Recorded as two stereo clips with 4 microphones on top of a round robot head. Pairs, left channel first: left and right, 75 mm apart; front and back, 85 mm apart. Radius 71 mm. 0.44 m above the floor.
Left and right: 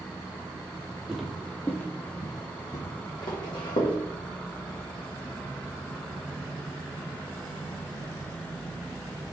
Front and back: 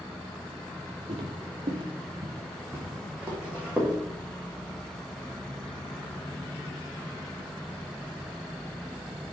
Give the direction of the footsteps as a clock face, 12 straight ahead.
6 o'clock.